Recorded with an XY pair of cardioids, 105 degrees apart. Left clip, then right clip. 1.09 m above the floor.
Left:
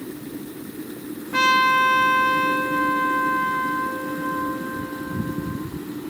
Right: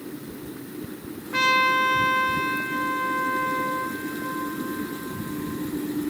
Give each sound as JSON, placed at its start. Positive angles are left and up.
{"t": 1.3, "sound": "a trumpet", "azimuth_deg": 10, "distance_m": 3.0}